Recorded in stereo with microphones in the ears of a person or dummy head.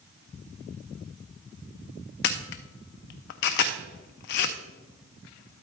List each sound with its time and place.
2.2 s a camera shutter: 55° left (ahead or behind), 0.5 m